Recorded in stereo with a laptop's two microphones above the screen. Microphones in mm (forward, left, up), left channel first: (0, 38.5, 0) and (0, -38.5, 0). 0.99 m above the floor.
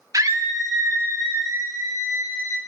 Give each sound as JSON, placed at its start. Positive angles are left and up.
{"t": 0.1, "sound": "a scream", "side_deg": -45, "distance_m": 0.5}